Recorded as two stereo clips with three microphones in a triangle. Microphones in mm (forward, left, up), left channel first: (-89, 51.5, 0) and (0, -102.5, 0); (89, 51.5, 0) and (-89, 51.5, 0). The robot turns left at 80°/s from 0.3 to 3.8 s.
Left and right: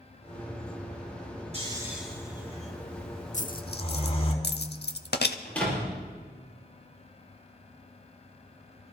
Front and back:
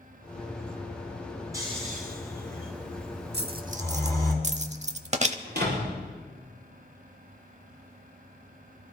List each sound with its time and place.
1.5 s snoring: 110° right, 4 m; by 4.3 s 70° left, 4 m
3.3 s a dropped coin: 170° left, 0.7 m; by 5.3 s 130° left, 0.7 m
5.5 s a door slam: 160° right, 6.5 m